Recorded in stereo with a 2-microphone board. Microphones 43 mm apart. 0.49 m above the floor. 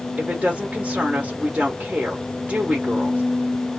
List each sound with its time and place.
0.2 s a woman speaking: 30° right (ahead or behind), 1.1 m